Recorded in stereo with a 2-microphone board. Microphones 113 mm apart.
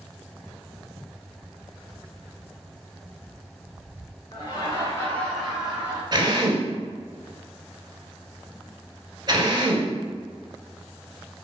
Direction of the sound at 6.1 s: 40° right (ahead or behind).